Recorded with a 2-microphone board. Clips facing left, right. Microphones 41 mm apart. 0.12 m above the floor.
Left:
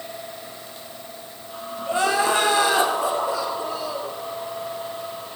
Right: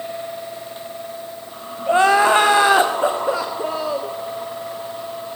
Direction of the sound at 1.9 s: 35° right (ahead or behind).